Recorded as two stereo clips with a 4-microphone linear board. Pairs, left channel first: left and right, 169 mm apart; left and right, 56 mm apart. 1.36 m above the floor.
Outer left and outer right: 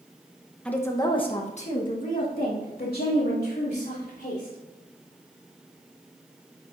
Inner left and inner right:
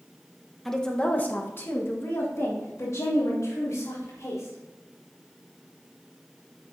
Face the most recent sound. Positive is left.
turn(degrees=75)  # may be behind; listen again after turning